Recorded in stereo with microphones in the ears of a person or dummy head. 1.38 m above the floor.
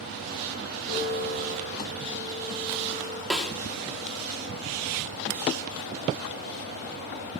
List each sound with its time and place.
0.9 s a piano: 30° left (ahead or behind), 8.5 m
3.3 s a snare drum: 5° left (ahead or behind), 1.9 m